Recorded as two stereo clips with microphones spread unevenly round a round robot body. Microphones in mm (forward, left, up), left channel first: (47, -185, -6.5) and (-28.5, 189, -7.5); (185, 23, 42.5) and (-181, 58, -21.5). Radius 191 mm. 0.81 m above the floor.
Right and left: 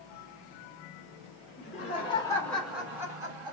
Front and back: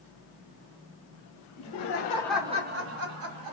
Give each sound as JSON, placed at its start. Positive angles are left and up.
{"t": 1.6, "sound": "laughter", "azimuth_deg": -15, "distance_m": 0.7}